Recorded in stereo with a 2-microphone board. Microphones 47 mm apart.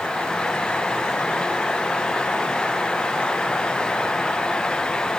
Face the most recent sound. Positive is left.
No sound to turn to.